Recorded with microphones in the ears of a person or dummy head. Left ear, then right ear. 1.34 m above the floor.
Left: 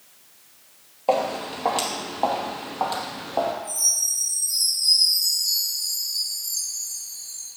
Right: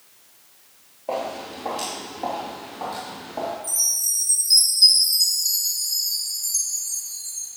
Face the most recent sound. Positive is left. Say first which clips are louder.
# left 1 dB
turn(degrees=-35)  # may be behind; listen again after turning